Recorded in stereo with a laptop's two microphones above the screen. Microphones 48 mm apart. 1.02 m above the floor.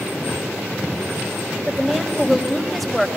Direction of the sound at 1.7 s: Centre (ahead or behind).